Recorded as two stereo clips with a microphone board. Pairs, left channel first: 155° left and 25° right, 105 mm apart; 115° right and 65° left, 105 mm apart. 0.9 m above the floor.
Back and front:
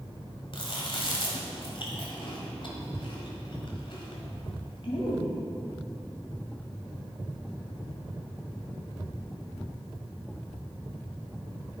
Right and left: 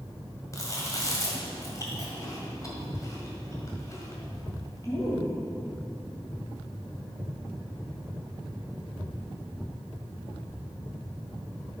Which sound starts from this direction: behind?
Chewing, at 0.5 s.